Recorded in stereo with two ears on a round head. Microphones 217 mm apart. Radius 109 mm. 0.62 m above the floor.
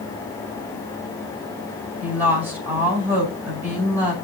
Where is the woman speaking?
10° right (ahead or behind), 3.5 m.